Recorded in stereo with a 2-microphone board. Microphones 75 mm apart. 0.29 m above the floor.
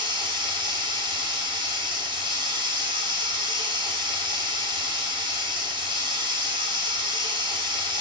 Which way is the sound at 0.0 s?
90° right.